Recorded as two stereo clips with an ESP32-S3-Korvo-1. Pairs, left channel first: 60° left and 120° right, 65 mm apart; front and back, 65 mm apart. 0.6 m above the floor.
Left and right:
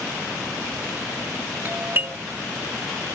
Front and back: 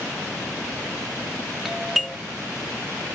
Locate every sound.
1.6 s a doorbell: 95° right